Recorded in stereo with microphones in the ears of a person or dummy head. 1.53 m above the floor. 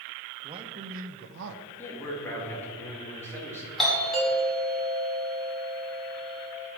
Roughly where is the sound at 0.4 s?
Right.